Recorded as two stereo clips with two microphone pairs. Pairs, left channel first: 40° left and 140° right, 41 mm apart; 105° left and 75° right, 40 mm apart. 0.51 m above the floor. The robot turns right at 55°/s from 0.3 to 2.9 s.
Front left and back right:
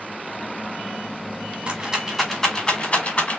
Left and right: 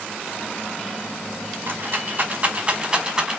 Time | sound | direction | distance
1.7 | a rattle | 85° right | 1.5 m